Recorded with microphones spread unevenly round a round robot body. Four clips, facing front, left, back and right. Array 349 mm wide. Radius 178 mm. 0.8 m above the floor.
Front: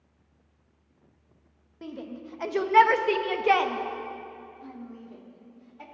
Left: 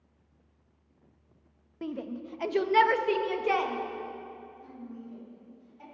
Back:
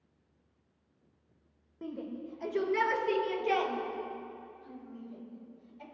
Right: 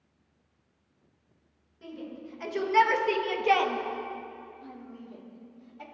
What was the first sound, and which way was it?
A shout, 80° left.